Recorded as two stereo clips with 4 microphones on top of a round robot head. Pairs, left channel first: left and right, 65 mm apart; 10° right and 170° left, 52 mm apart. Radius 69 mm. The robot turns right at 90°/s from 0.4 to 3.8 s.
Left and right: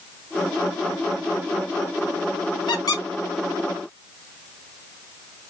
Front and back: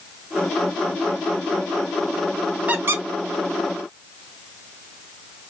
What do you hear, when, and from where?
2.7 s a squeak: 105° left, 0.6 m; by 3.0 s 135° left, 0.6 m